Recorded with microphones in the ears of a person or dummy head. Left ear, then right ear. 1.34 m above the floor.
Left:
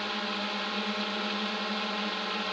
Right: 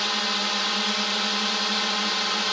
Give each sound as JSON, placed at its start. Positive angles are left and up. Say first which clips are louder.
{"t": 0.0, "sound": "a drone", "louder": "right 8 dB", "side_deg": -70}